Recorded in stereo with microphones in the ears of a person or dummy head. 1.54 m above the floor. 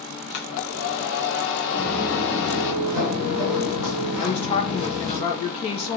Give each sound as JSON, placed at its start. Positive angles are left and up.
{"t": 0.3, "sound": "a hair dryer", "side_deg": 60, "distance_m": 1.8}
{"t": 1.7, "sound": "footsteps", "side_deg": 0, "distance_m": 2.0}
{"t": 4.2, "sound": "a woman speaking", "side_deg": 40, "distance_m": 1.3}